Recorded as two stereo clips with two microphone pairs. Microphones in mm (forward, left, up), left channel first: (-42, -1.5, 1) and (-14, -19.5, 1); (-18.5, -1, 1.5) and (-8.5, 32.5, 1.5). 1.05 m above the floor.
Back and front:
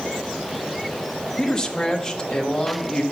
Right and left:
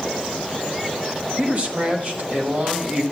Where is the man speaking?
80° left, 1.0 m.